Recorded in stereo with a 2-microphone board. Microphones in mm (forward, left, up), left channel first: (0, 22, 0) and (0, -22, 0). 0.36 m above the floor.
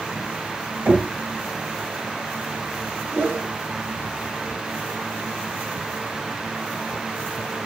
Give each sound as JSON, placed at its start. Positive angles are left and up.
{"t": 0.8, "sound": "knocking", "side_deg": -40, "distance_m": 1.2}
{"t": 3.1, "sound": "a whoosh", "side_deg": -55, "distance_m": 0.6}